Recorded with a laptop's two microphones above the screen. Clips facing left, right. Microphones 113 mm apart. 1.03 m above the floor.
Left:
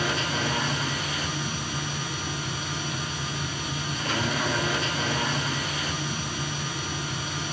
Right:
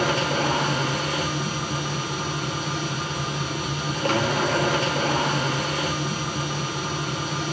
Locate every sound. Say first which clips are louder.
0.0 s a machine running: right 5 dB; 70° right (ahead or behind), 4 m